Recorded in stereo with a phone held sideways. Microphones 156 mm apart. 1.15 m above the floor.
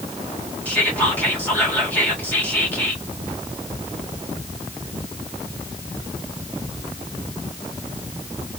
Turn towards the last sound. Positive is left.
turn(degrees=10)  # may be behind; listen again after turning